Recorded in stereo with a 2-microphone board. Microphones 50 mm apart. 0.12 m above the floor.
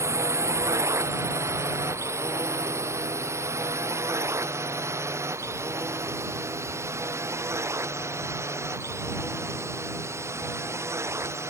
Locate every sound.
0.0 s a drone: 75° right (ahead or behind); by 11.5 s 70° right (ahead or behind)